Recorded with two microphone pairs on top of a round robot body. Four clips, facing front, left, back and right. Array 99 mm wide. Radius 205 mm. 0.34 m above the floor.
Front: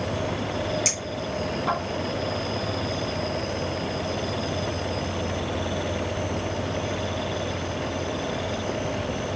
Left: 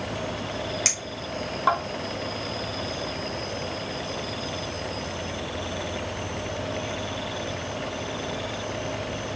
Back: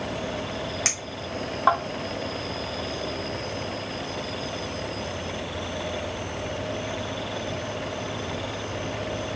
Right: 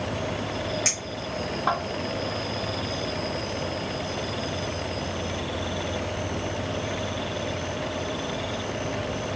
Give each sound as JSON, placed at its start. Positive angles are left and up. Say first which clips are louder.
{"t": 0.8, "sound": "a clink", "louder": "right 1 dB, front 4 dB", "azimuth_deg": 170, "distance_m": 2.5}